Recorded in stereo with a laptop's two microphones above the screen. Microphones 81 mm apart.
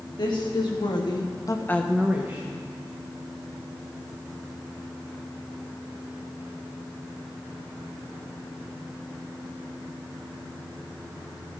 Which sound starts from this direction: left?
A woman speaking, at 0.2 s.